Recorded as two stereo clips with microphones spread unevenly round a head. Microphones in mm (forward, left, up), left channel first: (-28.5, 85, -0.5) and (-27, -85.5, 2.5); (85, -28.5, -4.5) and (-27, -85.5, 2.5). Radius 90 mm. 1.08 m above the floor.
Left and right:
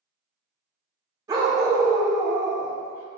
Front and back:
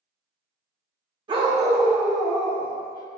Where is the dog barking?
145° right, 0.8 m; by 3.1 s 15° right, 0.8 m.